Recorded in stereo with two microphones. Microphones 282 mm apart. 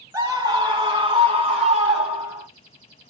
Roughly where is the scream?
Centre.